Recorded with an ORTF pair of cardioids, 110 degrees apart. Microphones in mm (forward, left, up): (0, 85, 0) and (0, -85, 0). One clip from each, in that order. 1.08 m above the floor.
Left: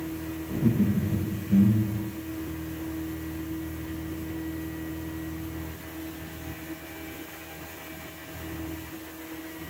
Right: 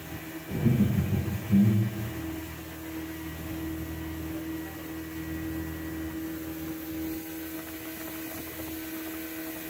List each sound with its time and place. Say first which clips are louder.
0.5 s laughter: left 1 dB; 5° right, 3.5 m